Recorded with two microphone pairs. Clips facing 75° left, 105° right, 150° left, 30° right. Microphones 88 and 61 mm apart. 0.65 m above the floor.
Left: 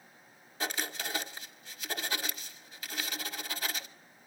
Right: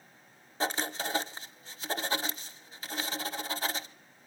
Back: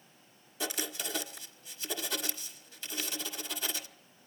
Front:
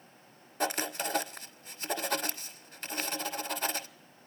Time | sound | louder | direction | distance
0.6 | writing | right 4 dB, front 5 dB | 55° right | 0.9 m